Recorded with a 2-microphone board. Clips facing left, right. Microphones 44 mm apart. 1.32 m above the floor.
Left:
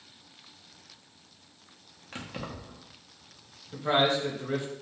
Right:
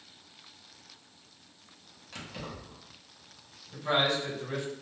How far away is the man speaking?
About 1.0 m.